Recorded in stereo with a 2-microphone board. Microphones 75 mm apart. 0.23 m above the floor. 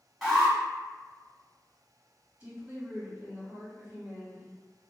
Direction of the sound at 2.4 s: 15° right (ahead or behind).